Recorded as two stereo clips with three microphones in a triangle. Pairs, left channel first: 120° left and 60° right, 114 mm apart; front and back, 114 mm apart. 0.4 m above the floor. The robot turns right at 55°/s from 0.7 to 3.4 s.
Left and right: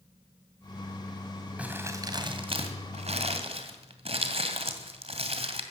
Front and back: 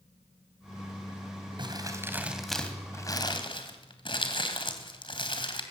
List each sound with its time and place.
1.6 s crumpling: 140° right, 2 m; by 5.6 s 40° right, 2 m